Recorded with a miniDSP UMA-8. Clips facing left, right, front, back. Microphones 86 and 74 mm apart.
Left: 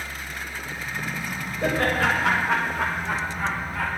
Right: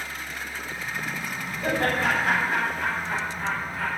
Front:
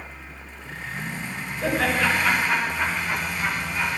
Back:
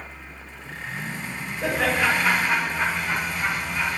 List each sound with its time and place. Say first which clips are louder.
1.6 s laughter: left 2 dB, even; 100° left, 6.5 m; by 3.9 s 95° left, 4 m